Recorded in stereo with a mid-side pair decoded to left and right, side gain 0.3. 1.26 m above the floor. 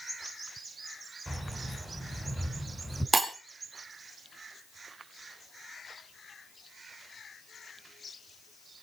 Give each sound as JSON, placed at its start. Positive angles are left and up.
{"t": 1.3, "sound": "keys jangling", "azimuth_deg": -5, "distance_m": 7.0}
{"t": 3.1, "sound": "breaking glass", "azimuth_deg": -30, "distance_m": 5.5}